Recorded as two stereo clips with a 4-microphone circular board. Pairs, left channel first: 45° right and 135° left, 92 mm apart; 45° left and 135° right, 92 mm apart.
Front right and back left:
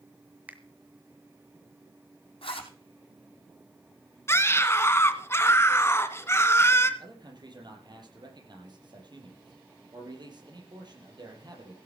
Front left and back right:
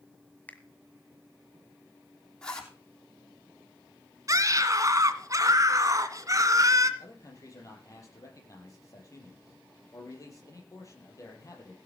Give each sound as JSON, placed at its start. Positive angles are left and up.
{"t": 0.5, "sound": "a finger snap", "azimuth_deg": 90, "distance_m": 1.5}
{"t": 2.4, "sound": "a zipper", "azimuth_deg": -35, "distance_m": 4.0}
{"t": 4.3, "sound": "a scream", "azimuth_deg": -100, "distance_m": 1.6}
{"t": 7.0, "sound": "a man speaking", "azimuth_deg": 100, "distance_m": 5.0}